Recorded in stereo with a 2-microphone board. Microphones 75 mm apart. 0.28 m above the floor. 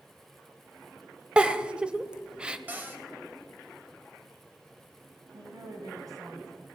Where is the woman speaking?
55° right (ahead or behind), 2.5 m.